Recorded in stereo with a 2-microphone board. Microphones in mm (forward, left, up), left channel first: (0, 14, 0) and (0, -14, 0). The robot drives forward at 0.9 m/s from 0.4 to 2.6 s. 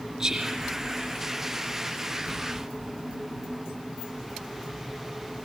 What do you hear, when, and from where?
0.2 s whispering: 15° right (ahead or behind), 2.5 m